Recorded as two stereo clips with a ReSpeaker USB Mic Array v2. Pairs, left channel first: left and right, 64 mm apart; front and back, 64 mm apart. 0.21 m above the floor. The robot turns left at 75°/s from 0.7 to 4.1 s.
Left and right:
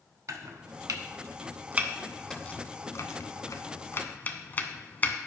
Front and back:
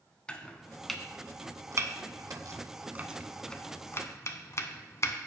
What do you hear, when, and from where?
0.3 s chopping: 70° right, 0.5 m; by 5.2 s 35° left, 0.5 m